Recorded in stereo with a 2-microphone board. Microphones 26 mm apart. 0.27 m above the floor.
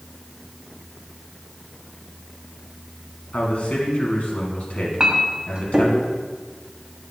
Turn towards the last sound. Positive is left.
turn(degrees=-30)  # may be behind; listen again after turning